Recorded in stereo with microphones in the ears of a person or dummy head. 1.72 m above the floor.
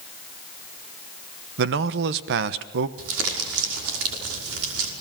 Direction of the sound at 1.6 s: 60° right (ahead or behind).